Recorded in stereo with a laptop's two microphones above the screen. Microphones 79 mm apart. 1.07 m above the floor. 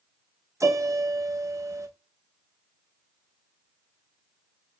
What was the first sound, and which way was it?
A piano, 40° right (ahead or behind).